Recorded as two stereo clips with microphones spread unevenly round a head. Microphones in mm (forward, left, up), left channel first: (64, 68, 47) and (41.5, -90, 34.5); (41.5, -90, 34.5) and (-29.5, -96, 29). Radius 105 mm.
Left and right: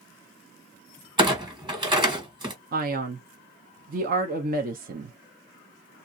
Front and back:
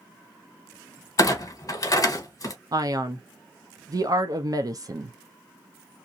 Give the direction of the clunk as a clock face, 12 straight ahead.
1 o'clock.